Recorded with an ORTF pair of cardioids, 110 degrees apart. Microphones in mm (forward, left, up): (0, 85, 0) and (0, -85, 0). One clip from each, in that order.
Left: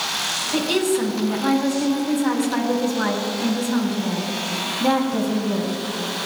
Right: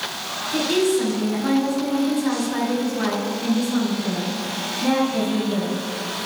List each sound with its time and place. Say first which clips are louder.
0.5 s a woman speaking: right 3 dB; 35° left, 5.5 m